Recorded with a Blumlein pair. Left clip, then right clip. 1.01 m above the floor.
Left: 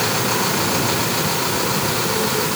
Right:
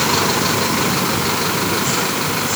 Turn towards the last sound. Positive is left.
No sound to turn to.